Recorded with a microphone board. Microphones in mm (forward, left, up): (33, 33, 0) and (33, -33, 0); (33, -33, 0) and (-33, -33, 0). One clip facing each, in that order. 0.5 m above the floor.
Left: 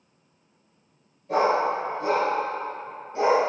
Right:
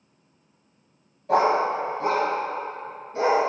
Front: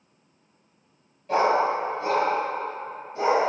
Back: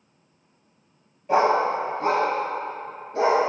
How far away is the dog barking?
About 1.3 m.